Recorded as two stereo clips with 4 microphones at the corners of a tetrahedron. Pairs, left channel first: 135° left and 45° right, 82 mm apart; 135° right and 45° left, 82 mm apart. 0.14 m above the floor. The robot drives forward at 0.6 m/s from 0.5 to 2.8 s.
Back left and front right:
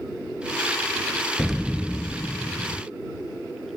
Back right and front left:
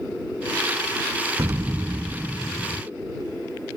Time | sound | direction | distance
1.4 | an explosion | 50° left | ?